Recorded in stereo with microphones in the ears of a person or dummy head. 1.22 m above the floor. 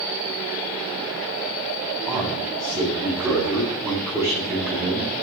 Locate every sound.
2.1 s a man speaking: 20° right (ahead or behind), 9.5 m; by 5.1 s 10° right (ahead or behind), 9.5 m